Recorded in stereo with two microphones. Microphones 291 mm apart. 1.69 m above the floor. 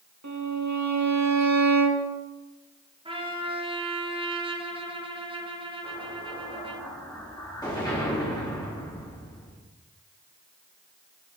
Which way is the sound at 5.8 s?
15° left (ahead or behind).